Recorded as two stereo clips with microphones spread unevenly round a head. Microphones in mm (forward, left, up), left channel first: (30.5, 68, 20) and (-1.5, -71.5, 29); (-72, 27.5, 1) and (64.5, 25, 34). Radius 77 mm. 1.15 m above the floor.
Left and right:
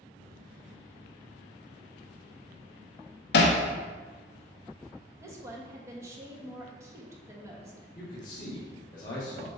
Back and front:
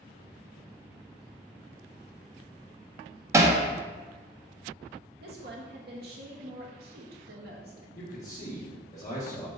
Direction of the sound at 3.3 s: 65° left.